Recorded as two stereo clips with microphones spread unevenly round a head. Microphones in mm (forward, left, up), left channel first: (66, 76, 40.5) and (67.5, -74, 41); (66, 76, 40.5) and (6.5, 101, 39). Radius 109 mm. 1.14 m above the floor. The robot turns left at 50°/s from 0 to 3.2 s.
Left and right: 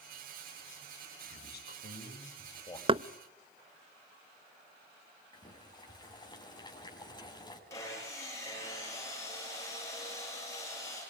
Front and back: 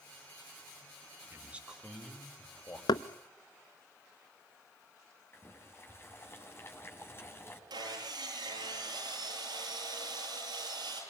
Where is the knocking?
35° right, 0.8 m; by 3.0 s 40° right, 0.8 m.